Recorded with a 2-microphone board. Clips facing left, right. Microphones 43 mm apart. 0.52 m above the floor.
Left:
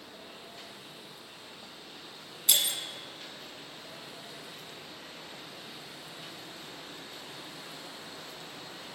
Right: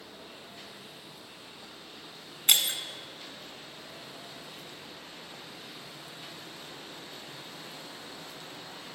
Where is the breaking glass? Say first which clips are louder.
Right 3 dB; 45° right (ahead or behind), 1.2 m.